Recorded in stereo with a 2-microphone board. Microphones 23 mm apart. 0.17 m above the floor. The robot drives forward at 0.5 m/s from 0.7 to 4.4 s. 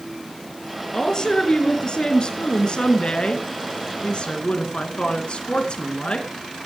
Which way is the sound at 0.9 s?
40° left (ahead or behind).